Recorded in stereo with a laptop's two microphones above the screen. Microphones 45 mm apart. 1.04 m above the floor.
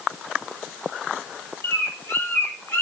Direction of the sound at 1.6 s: 70° left (ahead or behind).